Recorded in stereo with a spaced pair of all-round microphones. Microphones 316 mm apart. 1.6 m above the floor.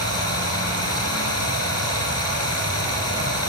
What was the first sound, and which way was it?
Running water, 50° left (ahead or behind).